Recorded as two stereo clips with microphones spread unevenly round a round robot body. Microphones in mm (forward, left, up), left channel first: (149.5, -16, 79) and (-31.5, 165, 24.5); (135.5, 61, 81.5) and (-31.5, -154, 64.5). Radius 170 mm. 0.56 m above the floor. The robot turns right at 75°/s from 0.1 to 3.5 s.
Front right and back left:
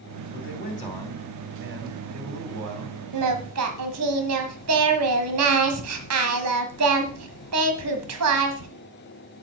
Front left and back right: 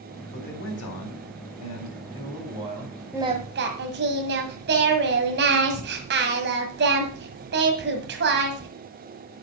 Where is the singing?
145° left, 1.4 m; by 8.7 s 175° left, 1.4 m.